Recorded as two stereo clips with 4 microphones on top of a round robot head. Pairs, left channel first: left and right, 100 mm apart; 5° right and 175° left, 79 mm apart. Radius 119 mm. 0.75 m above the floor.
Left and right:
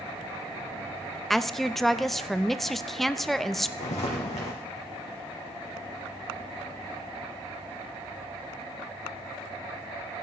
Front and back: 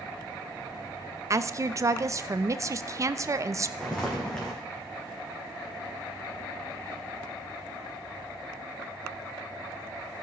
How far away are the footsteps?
About 3 m.